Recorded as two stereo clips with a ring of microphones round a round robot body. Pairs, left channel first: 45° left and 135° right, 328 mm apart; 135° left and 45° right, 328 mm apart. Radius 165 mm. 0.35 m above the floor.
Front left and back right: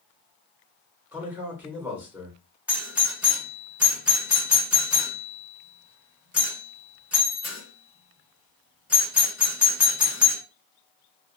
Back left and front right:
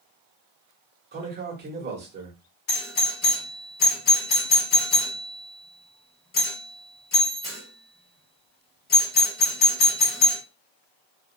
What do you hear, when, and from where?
1.1 s a man speaking: 55° right, 1.3 m
2.7 s a doorbell: 145° left, 1.7 m